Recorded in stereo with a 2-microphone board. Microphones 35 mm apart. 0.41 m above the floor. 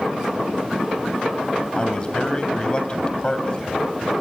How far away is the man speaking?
About 2.5 m.